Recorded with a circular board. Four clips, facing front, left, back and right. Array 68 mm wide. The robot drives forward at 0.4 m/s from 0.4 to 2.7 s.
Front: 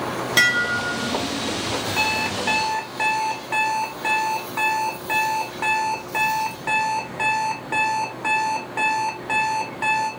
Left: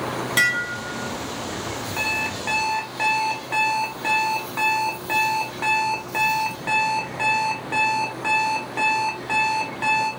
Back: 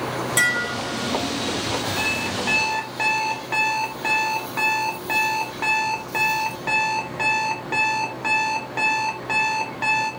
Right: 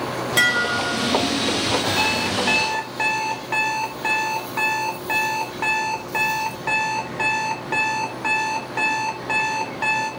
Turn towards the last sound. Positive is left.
turn(degrees=-140)